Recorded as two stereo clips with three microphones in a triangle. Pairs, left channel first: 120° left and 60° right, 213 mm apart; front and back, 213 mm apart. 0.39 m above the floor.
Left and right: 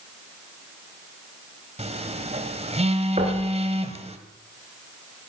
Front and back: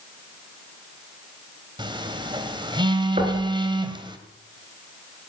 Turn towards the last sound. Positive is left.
turn(degrees=-120)